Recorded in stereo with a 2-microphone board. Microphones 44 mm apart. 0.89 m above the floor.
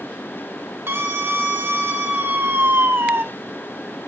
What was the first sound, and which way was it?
A scream, 80° right.